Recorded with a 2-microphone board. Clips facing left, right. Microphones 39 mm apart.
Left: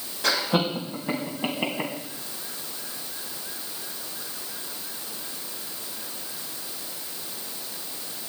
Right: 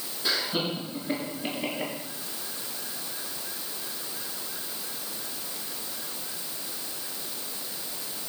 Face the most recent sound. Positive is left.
turn(degrees=60)  # may be behind; listen again after turning